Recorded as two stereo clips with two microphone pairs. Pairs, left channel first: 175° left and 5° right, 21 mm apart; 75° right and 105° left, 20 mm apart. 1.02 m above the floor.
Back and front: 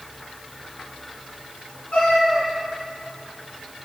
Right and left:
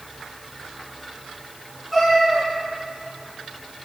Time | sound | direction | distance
1.9 | a cat meowing | 170° right | 2 m